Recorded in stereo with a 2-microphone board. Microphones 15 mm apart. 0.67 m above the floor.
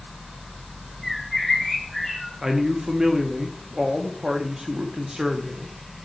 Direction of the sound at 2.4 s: 40° right (ahead or behind).